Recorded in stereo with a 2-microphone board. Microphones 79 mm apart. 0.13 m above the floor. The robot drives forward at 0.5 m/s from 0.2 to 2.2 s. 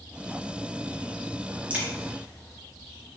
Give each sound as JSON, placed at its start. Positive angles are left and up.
{"t": 1.7, "sound": "a crack", "side_deg": -15, "distance_m": 2.0}